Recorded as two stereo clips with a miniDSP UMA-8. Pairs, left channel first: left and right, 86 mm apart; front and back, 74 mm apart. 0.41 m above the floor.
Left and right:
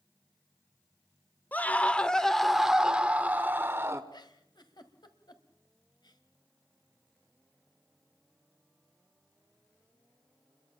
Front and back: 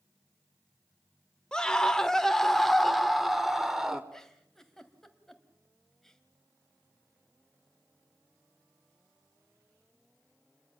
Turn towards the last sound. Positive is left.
turn(degrees=80)